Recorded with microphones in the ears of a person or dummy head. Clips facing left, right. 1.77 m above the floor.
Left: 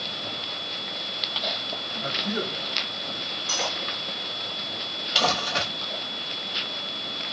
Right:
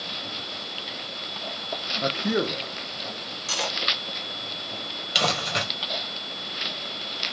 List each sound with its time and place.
2.0 s a man speaking: 75° right (ahead or behind), 0.7 m
3.5 s cutlery clinking: 35° right (ahead or behind), 1.1 m
5.2 s crumpling: 20° right (ahead or behind), 1.7 m